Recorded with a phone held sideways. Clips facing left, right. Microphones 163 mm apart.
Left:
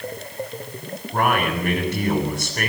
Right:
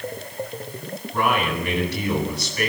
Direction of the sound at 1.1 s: 50° left (ahead or behind).